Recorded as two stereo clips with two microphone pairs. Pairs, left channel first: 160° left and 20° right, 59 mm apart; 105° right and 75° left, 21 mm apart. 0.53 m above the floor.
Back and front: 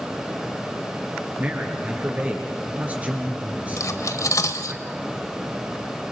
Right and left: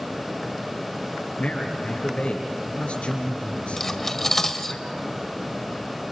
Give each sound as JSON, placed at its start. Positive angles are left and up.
{"t": 1.4, "sound": "a man speaking", "azimuth_deg": -85, "distance_m": 8.0}
{"t": 3.8, "sound": "cutlery clinking", "azimuth_deg": 175, "distance_m": 1.6}